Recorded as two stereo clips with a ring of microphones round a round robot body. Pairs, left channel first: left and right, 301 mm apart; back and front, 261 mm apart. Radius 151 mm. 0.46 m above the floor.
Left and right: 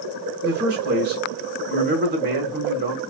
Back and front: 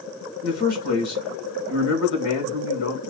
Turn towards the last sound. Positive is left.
turn(degrees=-150)